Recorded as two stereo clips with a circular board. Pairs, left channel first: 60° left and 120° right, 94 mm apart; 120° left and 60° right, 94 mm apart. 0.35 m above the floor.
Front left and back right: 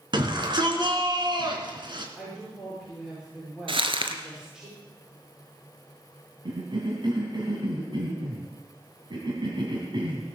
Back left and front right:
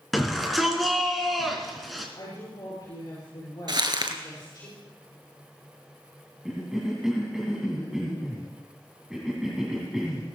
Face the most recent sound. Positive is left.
turn(degrees=-145)